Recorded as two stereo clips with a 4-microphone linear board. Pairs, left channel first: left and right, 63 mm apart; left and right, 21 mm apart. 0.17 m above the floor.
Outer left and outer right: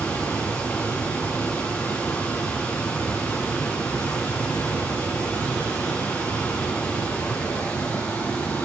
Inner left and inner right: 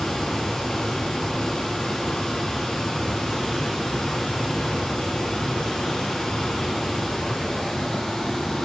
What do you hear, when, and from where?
0.0 s running water: 25° left (ahead or behind), 7.5 m